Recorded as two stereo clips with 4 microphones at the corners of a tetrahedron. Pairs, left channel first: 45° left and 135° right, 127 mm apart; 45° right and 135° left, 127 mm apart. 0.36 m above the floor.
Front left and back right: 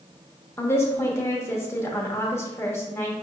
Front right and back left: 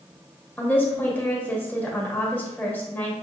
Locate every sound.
0.6 s a woman speaking: 5° left, 0.8 m